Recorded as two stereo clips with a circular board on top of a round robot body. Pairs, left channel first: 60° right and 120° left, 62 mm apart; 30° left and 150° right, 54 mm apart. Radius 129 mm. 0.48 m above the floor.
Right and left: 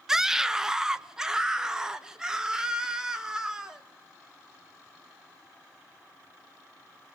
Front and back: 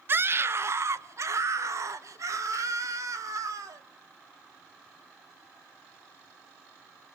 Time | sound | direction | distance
0.1 | a scream | 160° right | 0.9 m